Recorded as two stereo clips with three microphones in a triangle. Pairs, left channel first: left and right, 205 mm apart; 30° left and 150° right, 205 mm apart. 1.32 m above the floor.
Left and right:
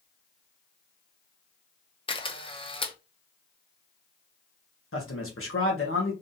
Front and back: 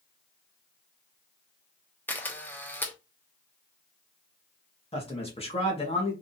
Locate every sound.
2.1 s a camera shutter: 100° left, 0.8 m
4.9 s a man speaking: 90° left, 1.6 m